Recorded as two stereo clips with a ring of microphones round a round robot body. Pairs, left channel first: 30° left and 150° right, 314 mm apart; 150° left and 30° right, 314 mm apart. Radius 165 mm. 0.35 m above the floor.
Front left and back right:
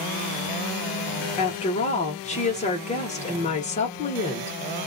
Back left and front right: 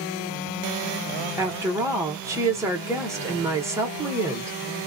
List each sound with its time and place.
1.4 s a woman speaking: 35° left, 1.0 m